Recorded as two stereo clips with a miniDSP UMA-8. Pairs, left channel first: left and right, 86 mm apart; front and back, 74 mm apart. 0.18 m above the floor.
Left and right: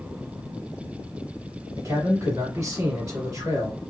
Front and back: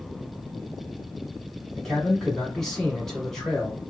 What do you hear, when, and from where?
1.8 s a man speaking: 80° right, 1.4 m